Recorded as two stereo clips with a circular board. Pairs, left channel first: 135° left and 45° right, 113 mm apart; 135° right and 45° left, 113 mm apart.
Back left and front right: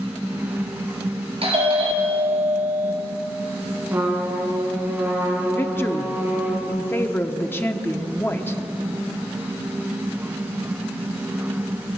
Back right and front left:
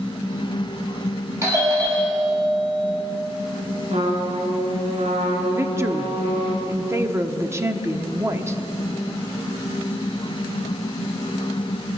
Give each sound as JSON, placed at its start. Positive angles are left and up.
{"t": 1.4, "sound": "a doorbell", "azimuth_deg": -20, "distance_m": 5.5}
{"t": 3.9, "sound": "a trumpet", "azimuth_deg": 25, "distance_m": 4.0}
{"t": 5.5, "sound": "a woman speaking", "azimuth_deg": 85, "distance_m": 0.9}